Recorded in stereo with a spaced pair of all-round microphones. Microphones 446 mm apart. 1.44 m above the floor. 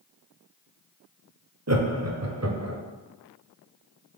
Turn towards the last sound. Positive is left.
turn(degrees=-35)  # may be behind; listen again after turning